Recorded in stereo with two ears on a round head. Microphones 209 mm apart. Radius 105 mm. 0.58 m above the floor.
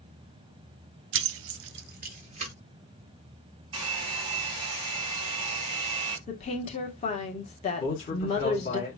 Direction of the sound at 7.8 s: 30° left (ahead or behind).